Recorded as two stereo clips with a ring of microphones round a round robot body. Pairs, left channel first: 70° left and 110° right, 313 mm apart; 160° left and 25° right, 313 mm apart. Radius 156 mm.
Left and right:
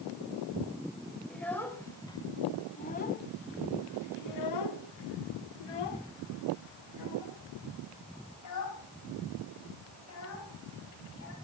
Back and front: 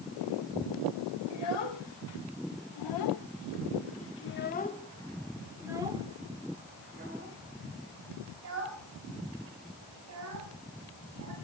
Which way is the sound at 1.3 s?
155° left.